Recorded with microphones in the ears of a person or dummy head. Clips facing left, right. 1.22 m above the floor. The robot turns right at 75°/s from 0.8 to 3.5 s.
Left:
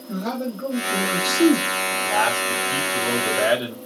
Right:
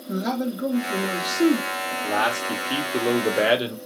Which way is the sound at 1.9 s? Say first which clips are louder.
Left 1 dB; 155° right.